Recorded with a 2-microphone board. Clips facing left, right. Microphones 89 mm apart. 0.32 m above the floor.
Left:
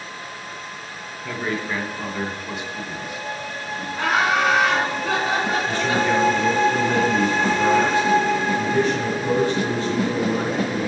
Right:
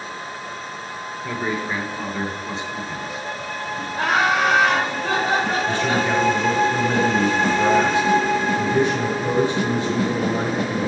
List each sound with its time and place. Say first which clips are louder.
1.2 s a man speaking: right 1 dB; 15° right (ahead or behind), 2.5 m; by 3.9 s 45° right (ahead or behind), 1.8 m
4.0 s laughter: right 1 dB; 50° right (ahead or behind), 2.5 m
5.7 s a man speaking: even; 20° right (ahead or behind), 1.4 m